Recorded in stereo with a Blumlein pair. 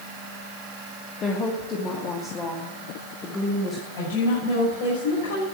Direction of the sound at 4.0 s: 45° left.